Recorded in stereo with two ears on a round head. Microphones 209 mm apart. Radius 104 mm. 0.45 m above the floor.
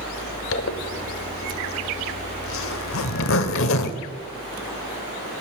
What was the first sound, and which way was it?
A zipper, 65° left (ahead or behind).